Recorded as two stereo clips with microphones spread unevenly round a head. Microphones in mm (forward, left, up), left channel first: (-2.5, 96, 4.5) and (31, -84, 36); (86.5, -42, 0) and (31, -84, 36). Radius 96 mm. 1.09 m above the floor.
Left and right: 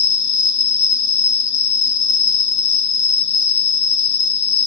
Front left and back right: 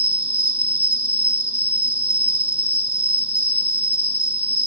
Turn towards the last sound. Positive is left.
turn(degrees=135)